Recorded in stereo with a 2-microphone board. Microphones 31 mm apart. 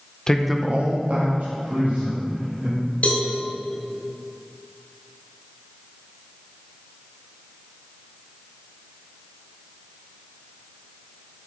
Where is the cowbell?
50° left (ahead or behind), 1.6 m.